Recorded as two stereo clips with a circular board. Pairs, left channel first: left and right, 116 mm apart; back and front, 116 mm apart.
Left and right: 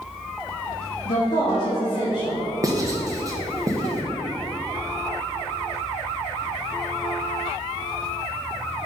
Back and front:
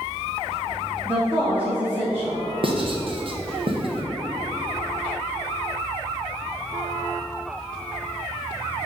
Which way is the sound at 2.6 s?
30° right.